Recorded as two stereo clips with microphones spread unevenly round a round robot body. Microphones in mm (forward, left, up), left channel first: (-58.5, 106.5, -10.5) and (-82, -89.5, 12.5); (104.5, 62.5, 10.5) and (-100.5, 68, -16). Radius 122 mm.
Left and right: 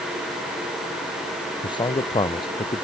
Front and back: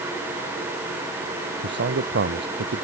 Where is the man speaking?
150° left.